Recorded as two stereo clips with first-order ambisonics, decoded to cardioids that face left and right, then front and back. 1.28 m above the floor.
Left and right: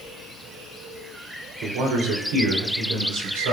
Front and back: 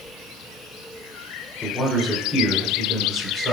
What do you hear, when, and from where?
1.6 s a man speaking: 85° right, 3 m; by 3.5 s 105° right, 3.5 m